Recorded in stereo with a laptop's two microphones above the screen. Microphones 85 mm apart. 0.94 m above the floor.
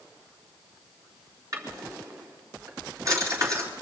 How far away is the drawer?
About 3.5 m.